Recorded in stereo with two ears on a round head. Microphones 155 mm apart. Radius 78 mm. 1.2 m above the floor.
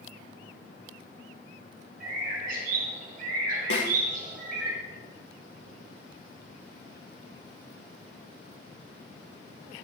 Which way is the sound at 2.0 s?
55° right (ahead or behind).